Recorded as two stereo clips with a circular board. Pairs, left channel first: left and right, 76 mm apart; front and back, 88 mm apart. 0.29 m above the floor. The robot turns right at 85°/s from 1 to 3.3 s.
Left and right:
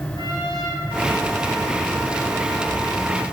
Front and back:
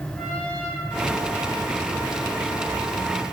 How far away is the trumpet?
About 7 m.